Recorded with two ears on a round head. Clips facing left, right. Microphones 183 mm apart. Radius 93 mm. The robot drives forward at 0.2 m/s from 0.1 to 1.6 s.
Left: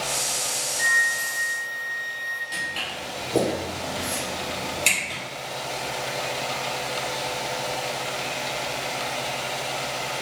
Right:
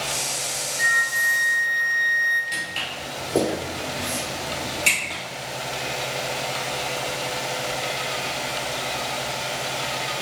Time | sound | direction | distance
0.8 | a flute | 45° right (ahead or behind) | 0.6 m
2.5 | footsteps | 30° right (ahead or behind) | 1.7 m